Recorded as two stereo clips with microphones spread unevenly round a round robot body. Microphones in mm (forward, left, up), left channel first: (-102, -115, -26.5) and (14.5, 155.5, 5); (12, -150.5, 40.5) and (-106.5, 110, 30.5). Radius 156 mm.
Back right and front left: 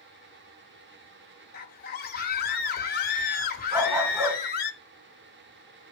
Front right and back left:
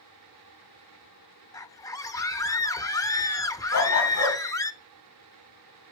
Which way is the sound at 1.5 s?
140° right.